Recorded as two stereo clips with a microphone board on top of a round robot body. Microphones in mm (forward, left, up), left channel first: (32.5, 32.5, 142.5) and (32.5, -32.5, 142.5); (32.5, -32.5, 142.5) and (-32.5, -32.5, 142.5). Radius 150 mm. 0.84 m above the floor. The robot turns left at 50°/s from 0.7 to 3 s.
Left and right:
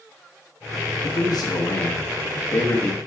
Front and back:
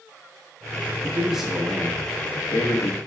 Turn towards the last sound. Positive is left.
turn(degrees=15)